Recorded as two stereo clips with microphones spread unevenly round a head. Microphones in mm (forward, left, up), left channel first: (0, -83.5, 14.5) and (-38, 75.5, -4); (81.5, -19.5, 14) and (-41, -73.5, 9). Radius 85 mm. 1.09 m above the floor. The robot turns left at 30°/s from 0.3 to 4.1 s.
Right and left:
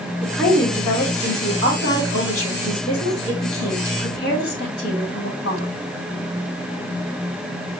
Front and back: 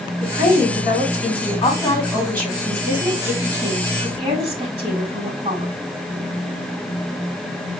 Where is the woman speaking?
5° left, 3 m; by 5.7 s 110° right, 3 m.